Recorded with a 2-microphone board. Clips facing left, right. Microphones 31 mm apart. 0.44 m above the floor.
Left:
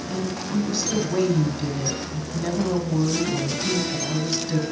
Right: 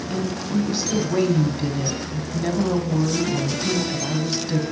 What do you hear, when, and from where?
0.1 s a woman speaking: 15° right (ahead or behind), 2.5 m